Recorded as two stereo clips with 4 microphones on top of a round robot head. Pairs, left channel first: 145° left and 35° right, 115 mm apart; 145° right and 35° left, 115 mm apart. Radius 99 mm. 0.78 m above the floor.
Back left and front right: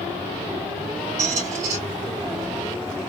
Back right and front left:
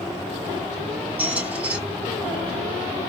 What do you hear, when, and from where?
1.2 s a squeak: 45° right, 2.0 m